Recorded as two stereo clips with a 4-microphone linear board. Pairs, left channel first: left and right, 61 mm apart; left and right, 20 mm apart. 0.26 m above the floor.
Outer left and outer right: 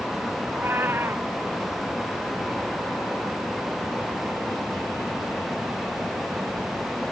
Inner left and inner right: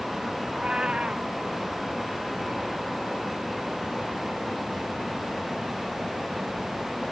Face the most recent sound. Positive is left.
turn(degrees=-40)  # may be behind; listen again after turning